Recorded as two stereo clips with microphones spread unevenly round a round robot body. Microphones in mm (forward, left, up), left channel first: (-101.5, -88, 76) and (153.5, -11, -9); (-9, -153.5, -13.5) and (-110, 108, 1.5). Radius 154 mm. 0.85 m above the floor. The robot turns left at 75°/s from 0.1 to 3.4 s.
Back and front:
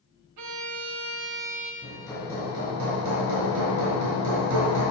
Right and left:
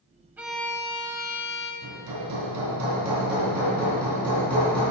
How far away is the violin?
About 0.7 m.